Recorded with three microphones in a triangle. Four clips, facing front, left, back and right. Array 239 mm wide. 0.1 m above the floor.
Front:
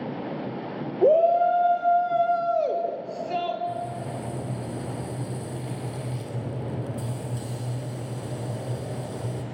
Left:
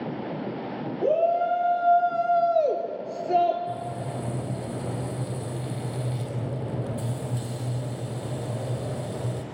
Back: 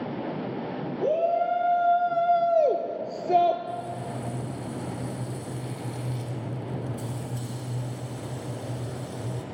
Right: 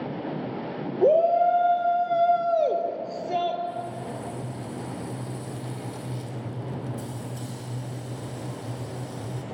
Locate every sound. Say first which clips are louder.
1.0 s a shout: right 4 dB, front 6 dB; 35° right, 2.5 m; by 3.6 s 155° left, 2.5 m
3.7 s frying: left 1 dB, front 2 dB; 65° left, 3.5 m